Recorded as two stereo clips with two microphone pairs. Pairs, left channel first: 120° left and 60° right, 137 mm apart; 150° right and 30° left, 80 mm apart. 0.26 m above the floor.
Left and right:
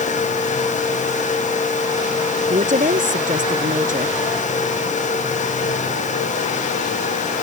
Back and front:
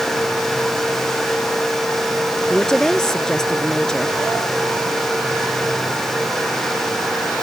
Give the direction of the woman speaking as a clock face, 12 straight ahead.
2 o'clock.